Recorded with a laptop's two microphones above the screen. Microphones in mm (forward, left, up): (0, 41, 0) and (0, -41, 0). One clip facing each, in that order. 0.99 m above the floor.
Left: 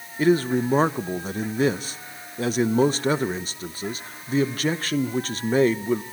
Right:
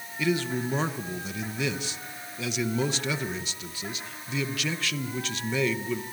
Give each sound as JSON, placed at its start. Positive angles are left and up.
{"t": 0.2, "sound": "a man speaking", "side_deg": 45, "distance_m": 0.6}